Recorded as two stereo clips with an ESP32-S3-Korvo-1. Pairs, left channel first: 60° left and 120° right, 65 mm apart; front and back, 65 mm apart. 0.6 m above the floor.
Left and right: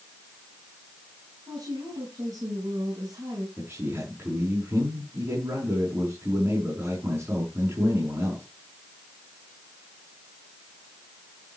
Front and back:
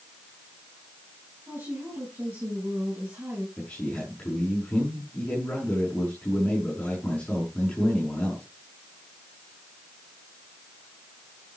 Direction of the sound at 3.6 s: 70° right.